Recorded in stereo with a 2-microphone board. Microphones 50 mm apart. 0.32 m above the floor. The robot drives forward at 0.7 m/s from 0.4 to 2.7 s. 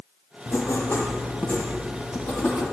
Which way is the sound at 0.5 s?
80° left.